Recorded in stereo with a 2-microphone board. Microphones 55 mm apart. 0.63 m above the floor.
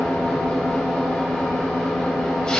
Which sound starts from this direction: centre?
An engine running, at 0.0 s.